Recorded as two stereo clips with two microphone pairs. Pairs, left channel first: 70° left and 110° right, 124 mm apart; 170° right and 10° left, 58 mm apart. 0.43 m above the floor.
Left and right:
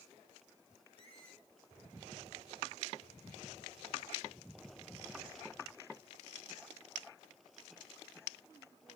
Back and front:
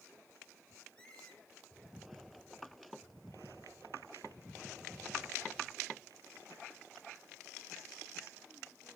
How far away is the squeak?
About 1.8 m.